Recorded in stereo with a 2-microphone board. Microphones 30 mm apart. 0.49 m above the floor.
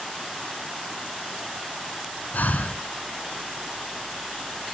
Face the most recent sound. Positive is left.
turn(degrees=75)  # may be behind; listen again after turning